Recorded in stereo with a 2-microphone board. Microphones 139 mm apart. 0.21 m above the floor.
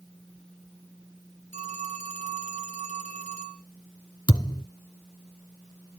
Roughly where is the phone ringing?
Right.